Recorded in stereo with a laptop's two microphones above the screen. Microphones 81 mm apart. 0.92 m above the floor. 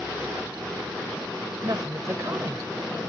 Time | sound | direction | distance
1.6 | a woman speaking | 45° right (ahead or behind) | ?